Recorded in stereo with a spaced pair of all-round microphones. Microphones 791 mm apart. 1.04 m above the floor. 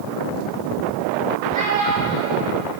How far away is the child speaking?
About 1.8 m.